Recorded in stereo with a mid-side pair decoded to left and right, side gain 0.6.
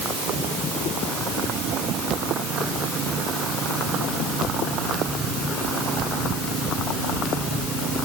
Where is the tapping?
No tapping in this recording.